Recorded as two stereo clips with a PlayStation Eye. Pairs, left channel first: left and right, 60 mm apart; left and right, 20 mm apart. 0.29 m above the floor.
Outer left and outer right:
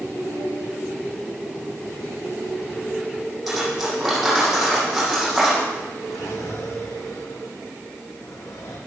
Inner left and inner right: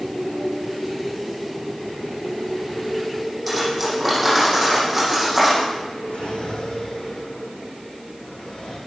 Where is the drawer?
85° left, 6 m.